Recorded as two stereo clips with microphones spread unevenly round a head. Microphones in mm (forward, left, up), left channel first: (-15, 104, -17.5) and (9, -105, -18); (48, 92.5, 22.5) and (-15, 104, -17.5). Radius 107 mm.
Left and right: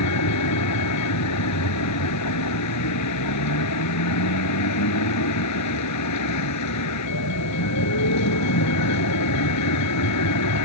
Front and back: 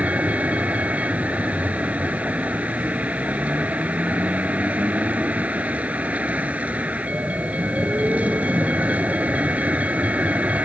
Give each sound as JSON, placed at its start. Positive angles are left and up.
{"t": 0.0, "sound": "a vehicle", "azimuth_deg": 95}